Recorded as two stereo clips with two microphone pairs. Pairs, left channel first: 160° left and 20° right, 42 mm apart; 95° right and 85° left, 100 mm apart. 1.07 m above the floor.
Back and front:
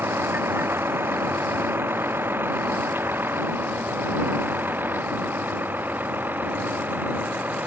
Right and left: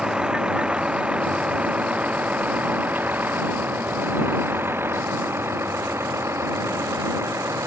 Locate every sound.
0.0 s a vehicle: 5° left; by 7.7 s 25° left